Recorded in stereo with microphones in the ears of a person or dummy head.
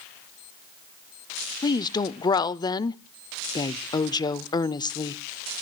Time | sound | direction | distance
1.6 | a woman speaking | 25° left (ahead or behind) | 0.5 m